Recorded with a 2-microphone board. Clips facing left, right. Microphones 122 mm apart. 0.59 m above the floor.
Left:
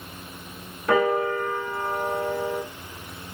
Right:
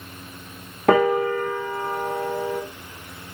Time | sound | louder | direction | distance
0.9 | a piano | right 4 dB | 75° right (ahead or behind) | 1.1 m